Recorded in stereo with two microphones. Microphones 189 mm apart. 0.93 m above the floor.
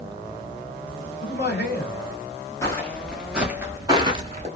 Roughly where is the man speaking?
Left.